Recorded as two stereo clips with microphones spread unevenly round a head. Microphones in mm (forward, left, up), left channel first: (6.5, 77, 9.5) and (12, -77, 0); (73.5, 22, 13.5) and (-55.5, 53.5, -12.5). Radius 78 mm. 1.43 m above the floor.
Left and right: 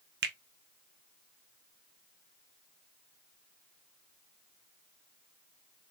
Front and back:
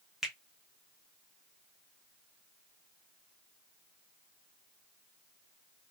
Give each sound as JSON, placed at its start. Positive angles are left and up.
{"t": 0.2, "sound": "a finger snap", "azimuth_deg": -100, "distance_m": 0.7}